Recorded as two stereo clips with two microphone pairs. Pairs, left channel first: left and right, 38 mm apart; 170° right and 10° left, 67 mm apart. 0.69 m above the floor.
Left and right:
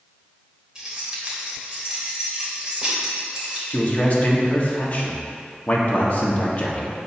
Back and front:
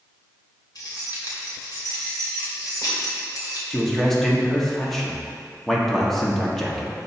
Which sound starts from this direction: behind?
Keys jangling, at 0.8 s.